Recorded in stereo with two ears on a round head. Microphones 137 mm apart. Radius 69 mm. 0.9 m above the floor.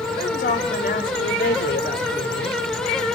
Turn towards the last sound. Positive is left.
turn(degrees=70)  # may be behind; listen again after turning